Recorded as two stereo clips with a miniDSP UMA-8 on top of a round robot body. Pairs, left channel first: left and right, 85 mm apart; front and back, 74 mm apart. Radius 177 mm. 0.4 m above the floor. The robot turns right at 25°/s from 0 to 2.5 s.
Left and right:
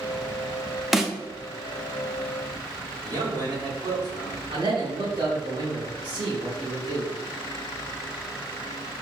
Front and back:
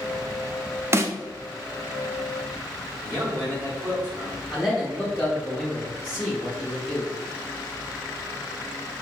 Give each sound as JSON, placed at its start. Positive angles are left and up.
{"t": 0.9, "sound": "a snare drum", "azimuth_deg": -175, "distance_m": 0.7}
{"t": 3.0, "sound": "a man speaking", "azimuth_deg": -135, "distance_m": 1.8}
{"t": 4.5, "sound": "a man speaking", "azimuth_deg": -85, "distance_m": 1.8}